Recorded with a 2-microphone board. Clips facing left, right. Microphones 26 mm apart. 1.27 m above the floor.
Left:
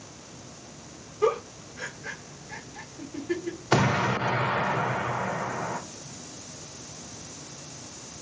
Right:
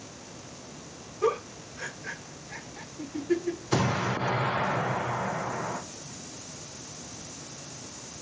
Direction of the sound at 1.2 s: 40° left (ahead or behind).